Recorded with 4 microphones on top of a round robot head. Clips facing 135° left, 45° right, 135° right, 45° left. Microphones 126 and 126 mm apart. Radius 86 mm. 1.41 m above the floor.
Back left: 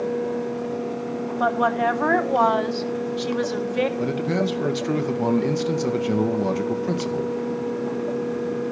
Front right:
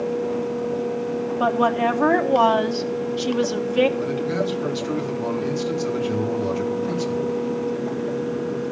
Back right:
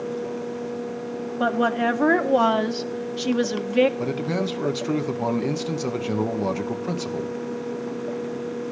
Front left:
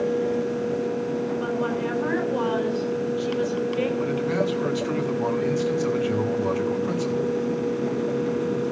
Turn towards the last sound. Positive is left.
turn(degrees=170)